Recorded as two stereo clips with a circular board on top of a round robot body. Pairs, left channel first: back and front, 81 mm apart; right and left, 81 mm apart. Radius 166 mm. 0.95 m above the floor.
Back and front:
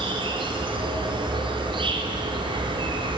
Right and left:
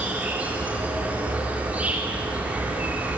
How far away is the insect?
About 3 m.